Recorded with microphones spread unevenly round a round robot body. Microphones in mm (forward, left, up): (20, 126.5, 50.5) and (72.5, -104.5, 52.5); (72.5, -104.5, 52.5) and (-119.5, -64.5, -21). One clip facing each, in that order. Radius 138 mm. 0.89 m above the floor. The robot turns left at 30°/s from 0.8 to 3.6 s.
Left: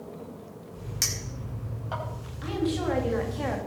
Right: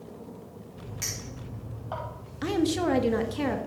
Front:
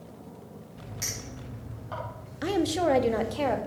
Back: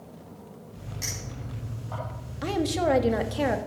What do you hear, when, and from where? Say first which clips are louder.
1.0 s a clink: left 1 dB, back 1 dB; 70° left, 4.5 m; by 2.0 s 40° left, 4.5 m
2.4 s a woman speaking: right 3 dB, even; 95° right, 1.5 m; by 3.6 s 130° right, 1.5 m